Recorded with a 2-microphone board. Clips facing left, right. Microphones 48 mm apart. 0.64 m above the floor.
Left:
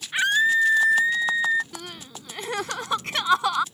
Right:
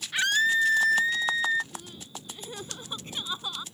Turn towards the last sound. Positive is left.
turn(degrees=85)